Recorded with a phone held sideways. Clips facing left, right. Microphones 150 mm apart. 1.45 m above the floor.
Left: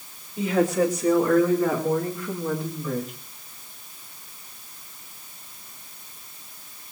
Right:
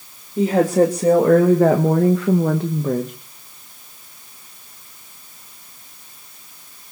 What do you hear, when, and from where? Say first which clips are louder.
0.4 s a woman speaking: right 6 dB; 45° right (ahead or behind), 3.5 m